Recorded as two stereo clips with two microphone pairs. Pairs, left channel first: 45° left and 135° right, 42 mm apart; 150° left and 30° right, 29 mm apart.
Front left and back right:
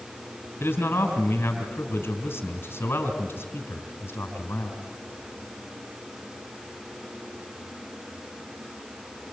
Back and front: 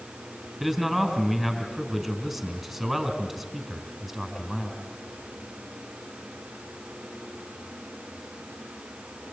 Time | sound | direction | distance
0.6 | a man speaking | 55° left | 3.5 m